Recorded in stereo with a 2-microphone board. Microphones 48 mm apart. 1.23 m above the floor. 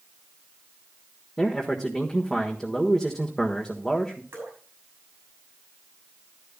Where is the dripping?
55° right (ahead or behind), 6.5 m.